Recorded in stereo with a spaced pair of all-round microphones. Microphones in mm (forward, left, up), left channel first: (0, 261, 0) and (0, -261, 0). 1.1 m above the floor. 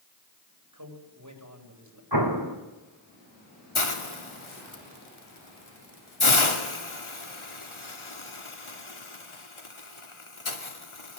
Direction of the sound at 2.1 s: 45° right (ahead or behind).